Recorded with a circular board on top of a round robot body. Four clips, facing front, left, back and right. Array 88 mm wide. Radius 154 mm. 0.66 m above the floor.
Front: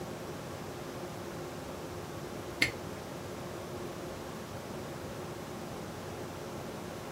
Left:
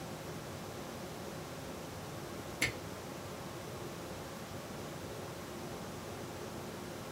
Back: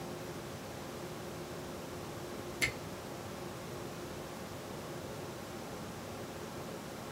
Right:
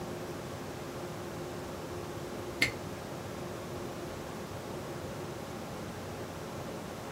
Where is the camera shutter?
35° right, 0.8 m.